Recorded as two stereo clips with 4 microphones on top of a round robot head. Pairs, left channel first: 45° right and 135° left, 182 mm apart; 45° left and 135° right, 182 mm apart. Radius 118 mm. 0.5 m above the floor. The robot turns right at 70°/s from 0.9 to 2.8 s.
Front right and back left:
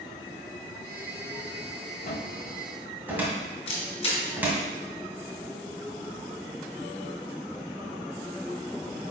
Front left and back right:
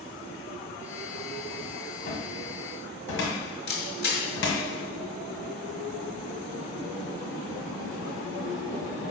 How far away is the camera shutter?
About 3 m.